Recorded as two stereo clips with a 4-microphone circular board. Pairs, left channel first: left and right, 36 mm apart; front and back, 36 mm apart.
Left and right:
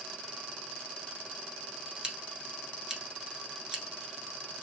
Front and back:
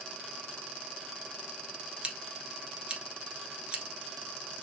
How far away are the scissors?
About 1.2 m.